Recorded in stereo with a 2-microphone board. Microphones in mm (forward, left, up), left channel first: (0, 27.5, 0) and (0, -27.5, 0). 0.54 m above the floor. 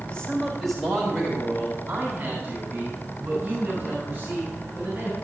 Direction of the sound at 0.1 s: 20° left (ahead or behind).